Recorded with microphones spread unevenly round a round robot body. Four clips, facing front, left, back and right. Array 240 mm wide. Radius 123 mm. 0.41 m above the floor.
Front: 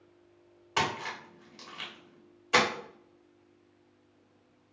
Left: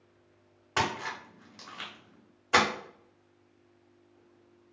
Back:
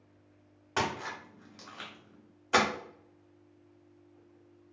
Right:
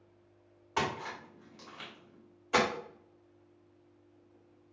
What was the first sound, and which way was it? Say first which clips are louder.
A splash: left 3 dB, front 1 dB; 120° left.